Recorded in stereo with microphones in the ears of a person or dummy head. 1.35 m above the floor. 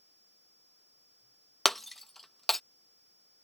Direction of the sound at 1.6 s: 5° left (ahead or behind).